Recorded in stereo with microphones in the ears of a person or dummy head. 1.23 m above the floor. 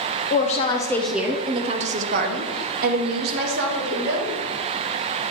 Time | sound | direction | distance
0.3 | a woman speaking | 35° left (ahead or behind) | 0.6 m